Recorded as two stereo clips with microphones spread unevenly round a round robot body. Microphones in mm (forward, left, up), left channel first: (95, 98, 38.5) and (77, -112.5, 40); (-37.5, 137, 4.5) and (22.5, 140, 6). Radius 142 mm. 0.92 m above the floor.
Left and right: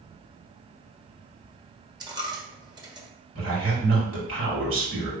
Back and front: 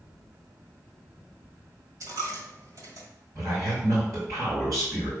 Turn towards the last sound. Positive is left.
turn(degrees=-80)